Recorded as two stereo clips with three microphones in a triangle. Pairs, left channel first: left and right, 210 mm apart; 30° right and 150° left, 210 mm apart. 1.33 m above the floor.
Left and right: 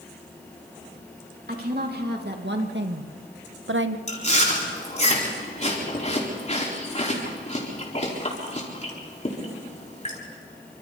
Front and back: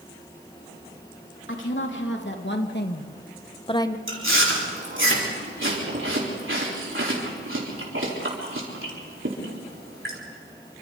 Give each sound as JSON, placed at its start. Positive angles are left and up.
{"t": 1.5, "sound": "a woman speaking", "azimuth_deg": -50, "distance_m": 3.0}
{"t": 4.1, "sound": "chewing", "azimuth_deg": 145, "distance_m": 4.0}